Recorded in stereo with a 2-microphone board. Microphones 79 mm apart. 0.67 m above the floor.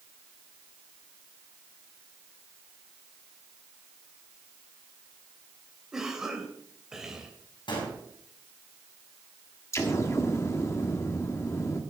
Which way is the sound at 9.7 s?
35° left (ahead or behind).